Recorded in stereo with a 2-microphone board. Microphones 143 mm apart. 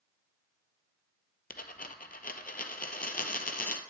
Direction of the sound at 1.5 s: 75° left (ahead or behind).